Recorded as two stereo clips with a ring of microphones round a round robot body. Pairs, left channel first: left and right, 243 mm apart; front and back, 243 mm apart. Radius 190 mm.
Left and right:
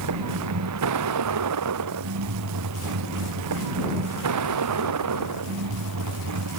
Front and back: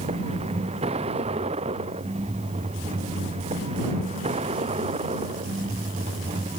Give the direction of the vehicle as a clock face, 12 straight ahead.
4 o'clock.